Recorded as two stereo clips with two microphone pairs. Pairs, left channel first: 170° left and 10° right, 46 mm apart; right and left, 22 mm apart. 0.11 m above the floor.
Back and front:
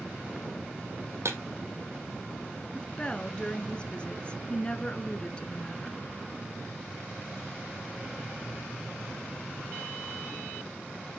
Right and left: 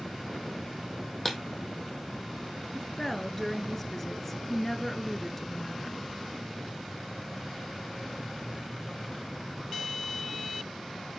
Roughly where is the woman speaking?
Behind right.